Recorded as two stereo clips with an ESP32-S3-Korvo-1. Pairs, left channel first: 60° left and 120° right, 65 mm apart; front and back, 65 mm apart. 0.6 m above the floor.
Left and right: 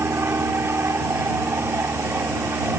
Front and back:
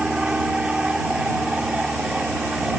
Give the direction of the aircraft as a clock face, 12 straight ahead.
4 o'clock.